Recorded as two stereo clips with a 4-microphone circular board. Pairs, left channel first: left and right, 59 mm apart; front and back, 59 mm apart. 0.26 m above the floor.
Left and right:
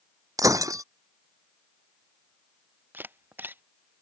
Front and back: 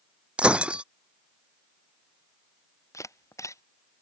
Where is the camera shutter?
35° right.